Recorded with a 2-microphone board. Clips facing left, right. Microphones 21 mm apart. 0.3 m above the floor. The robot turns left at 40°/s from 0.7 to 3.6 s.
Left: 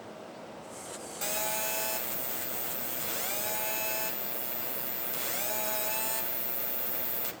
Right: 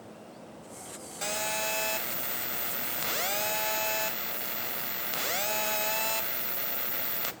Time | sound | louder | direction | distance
1.2 | a phone buzzing | right 3 dB | 20° right | 0.7 m